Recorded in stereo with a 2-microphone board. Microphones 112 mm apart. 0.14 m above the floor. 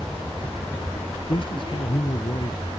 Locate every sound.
1.3 s a man speaking: 50° left (ahead or behind)